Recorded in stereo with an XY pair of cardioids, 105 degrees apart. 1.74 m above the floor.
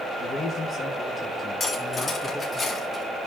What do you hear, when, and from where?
0.2 s a man speaking: 50° left, 2.5 m; by 2.6 s 5° left, 3 m
1.6 s cutlery clinking: 40° left, 3.5 m